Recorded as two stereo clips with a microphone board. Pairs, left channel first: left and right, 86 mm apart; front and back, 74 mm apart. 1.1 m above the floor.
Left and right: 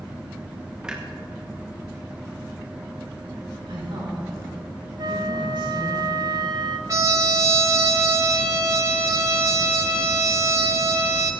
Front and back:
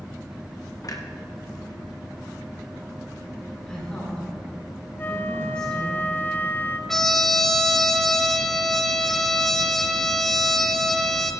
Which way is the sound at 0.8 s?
10° right.